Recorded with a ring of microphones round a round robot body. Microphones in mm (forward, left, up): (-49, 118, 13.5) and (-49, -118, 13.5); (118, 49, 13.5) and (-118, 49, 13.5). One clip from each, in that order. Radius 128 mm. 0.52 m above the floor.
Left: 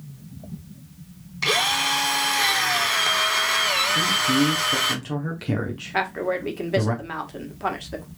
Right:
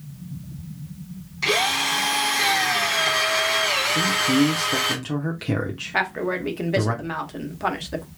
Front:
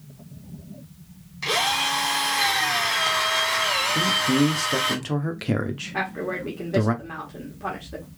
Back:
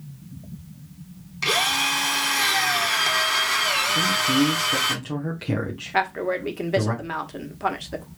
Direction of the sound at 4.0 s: 10° right.